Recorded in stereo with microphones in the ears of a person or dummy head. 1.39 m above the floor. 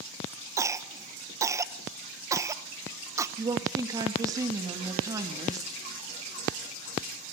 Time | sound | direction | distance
0.6 | a cough | 15° right (ahead or behind) | 1.2 m
3.4 | a woman speaking | 20° right (ahead or behind) | 2 m